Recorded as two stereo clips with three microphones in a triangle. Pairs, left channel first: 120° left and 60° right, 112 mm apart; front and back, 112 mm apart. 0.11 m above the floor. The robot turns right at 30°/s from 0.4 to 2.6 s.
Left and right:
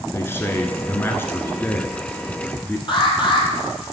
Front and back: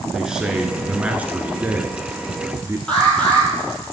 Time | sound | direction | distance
0.1 | a man speaking | 110° left | 1.1 m
2.9 | an alarm | 80° left | 2.5 m